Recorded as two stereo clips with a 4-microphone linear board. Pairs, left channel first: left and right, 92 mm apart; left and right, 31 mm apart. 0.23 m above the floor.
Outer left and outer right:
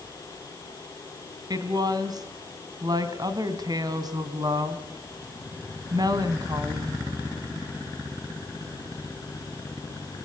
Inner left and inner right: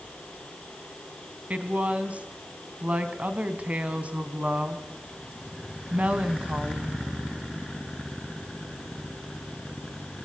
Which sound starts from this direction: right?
A woman speaking, at 1.5 s.